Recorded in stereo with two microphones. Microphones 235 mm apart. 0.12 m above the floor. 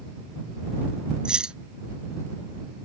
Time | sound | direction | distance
1.2 | keys jangling | 5° right (ahead or behind) | ?